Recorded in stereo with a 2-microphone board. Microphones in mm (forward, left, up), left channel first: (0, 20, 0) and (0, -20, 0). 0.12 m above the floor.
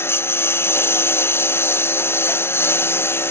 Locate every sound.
0.0 s a lawn mower: 80° left